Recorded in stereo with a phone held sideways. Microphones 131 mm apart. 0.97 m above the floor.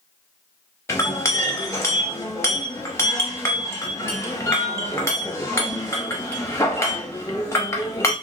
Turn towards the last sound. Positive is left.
turn(degrees=20)  # may be behind; listen again after turning